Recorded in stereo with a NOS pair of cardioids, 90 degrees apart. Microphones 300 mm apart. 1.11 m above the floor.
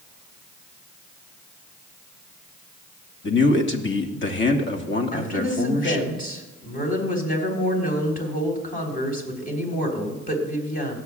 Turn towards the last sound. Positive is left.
turn(degrees=30)